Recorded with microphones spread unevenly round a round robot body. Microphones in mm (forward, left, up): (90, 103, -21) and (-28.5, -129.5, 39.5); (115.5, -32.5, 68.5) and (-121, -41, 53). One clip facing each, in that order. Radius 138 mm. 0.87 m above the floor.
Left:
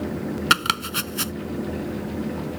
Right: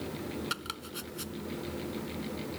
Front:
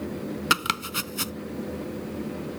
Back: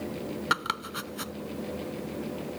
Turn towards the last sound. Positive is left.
turn(degrees=60)